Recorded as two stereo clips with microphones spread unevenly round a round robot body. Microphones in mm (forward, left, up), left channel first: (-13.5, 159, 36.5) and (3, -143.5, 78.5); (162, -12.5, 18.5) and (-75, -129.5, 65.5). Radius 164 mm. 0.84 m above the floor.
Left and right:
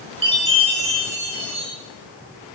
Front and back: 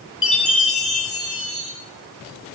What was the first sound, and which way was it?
A chime, 15° right.